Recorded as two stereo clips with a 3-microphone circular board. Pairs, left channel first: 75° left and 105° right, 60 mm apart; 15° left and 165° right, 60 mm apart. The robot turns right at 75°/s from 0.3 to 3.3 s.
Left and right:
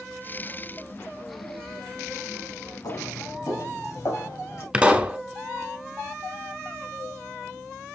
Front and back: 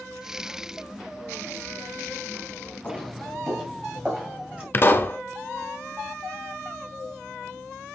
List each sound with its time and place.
2.8 s footsteps: 75° left, 3.5 m; by 4.6 s 125° left, 4.5 m
4.7 s a pop: 35° right, 1.3 m